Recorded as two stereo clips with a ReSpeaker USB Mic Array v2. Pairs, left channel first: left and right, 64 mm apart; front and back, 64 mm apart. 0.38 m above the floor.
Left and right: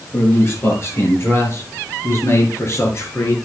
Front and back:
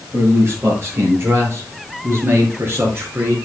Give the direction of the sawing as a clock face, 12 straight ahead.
No sawing in this recording.